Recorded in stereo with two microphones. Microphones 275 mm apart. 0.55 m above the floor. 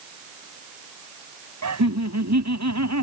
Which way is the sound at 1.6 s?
70° right (ahead or behind).